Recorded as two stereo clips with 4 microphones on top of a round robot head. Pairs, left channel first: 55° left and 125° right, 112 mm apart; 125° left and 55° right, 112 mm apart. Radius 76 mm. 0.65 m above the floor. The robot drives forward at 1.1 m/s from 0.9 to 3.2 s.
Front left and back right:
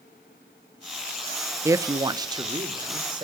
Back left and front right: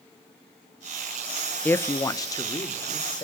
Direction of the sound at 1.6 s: 170° right.